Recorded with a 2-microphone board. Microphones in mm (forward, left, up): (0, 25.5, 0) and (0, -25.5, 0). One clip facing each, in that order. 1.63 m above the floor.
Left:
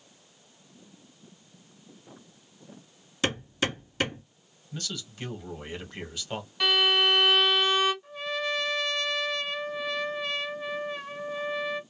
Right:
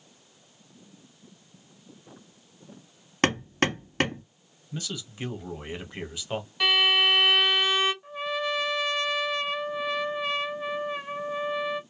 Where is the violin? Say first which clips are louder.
Right 1 dB; 10° right (ahead or behind), 1.7 m.